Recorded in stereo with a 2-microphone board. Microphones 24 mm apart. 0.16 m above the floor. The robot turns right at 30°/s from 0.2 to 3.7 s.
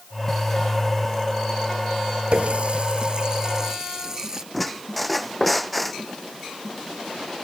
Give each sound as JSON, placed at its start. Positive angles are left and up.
{"t": 2.3, "sound": "a running tap", "azimuth_deg": -65}
{"t": 4.5, "sound": "a squeak", "side_deg": 0}